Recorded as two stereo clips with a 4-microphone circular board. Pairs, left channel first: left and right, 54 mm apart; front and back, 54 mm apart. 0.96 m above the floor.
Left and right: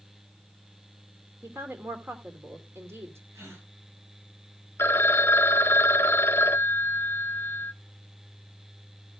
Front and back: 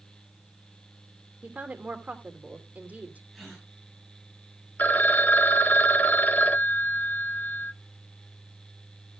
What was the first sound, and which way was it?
A woman speaking, 120° right.